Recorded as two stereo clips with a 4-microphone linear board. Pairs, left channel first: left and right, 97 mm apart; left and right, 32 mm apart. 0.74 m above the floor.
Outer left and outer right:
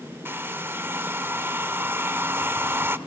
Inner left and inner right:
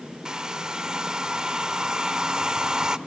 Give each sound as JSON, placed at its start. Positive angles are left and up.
{"t": 0.2, "sound": "a hair dryer", "side_deg": -25, "distance_m": 0.7}